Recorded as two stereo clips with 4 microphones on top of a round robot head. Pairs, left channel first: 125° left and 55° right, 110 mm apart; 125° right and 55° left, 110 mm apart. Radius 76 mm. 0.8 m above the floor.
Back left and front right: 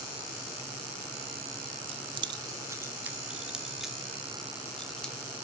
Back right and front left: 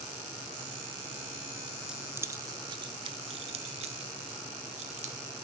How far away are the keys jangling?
About 0.6 m.